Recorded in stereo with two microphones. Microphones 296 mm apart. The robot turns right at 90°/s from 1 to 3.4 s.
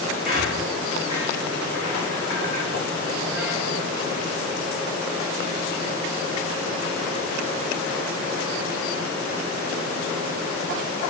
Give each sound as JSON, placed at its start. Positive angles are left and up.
{"t": 0.2, "sound": "a squeak", "side_deg": -30, "distance_m": 5.0}